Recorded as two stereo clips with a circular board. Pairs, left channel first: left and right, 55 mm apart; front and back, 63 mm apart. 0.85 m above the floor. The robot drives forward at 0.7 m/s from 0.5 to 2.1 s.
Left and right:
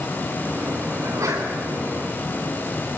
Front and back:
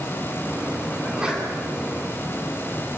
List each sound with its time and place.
1.0 s a sneeze: 100° right, 9 m; by 1.5 s 105° right, 9 m